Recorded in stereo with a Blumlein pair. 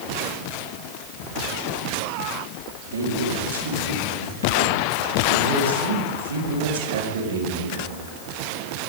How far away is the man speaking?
About 4.5 m.